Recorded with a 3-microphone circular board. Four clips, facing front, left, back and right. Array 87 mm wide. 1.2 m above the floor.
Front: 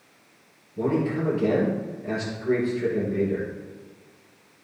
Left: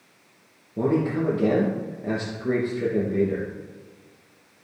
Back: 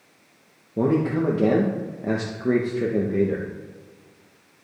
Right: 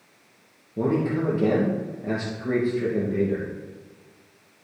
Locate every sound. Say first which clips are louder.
0.8 s a man speaking: left 1 dB, back 3 dB; 170° left, 1.2 m